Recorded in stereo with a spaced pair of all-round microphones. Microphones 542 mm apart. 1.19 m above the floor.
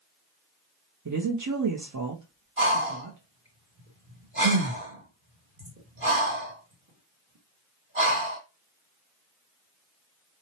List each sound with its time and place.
1.1 s a woman speaking: 35° right (ahead or behind), 0.6 m
2.6 s breathing: 65° right (ahead or behind), 1.5 m